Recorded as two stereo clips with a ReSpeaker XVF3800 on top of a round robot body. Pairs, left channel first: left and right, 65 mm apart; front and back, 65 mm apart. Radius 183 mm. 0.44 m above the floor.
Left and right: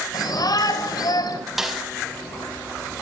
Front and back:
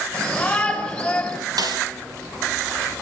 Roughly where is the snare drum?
Behind.